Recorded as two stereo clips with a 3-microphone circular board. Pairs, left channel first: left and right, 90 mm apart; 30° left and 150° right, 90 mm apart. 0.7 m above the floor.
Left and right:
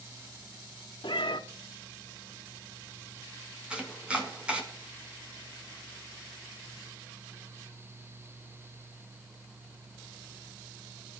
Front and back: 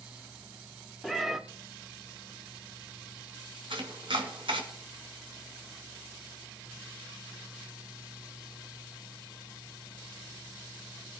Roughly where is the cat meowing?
Behind left.